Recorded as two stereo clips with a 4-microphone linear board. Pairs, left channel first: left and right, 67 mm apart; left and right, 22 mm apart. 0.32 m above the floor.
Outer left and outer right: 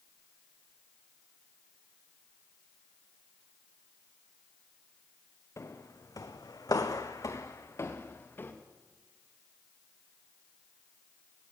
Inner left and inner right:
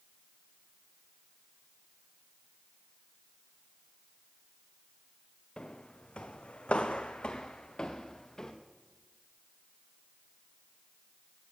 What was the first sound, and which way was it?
Footsteps, 45° left (ahead or behind).